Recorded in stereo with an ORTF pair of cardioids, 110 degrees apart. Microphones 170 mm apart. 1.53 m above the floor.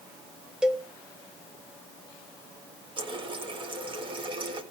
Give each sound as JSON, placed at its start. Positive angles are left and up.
{"t": 0.6, "sound": "a cowbell", "azimuth_deg": -5, "distance_m": 0.9}
{"t": 3.0, "sound": "a running tap", "azimuth_deg": -30, "distance_m": 1.6}